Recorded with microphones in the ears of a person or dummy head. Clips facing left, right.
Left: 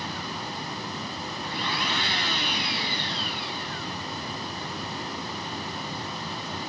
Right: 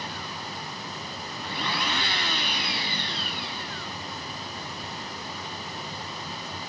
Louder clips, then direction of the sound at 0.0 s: Left 3 dB; 60° left (ahead or behind).